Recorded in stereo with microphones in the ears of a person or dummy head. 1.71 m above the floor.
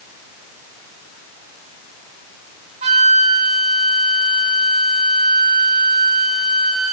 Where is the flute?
35° right (ahead or behind), 1.5 m.